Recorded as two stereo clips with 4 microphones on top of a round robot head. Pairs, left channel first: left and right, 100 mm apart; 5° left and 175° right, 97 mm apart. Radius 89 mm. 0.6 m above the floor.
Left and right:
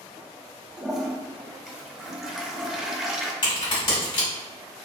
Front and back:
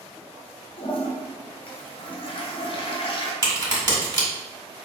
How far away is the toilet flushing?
About 0.7 m.